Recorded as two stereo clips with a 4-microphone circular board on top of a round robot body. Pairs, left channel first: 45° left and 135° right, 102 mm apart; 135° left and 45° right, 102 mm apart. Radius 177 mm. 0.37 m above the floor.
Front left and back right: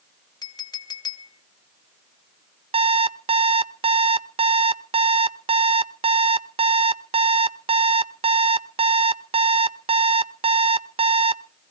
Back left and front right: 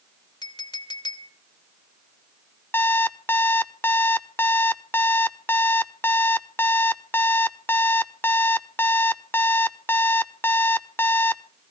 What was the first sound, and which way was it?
A clink, 95° left.